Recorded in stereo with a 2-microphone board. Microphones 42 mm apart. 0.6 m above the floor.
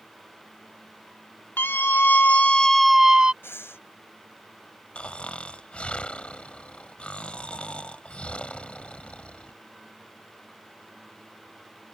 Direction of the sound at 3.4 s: 75° left (ahead or behind).